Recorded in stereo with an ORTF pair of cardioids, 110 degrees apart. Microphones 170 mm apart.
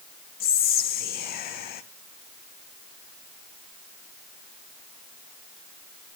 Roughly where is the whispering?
Ahead left.